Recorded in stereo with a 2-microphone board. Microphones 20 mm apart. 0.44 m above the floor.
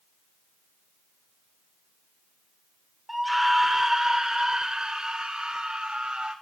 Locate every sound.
3.1 s a scream: 5° left (ahead or behind), 0.9 m; by 6.3 s 60° right (ahead or behind), 1.8 m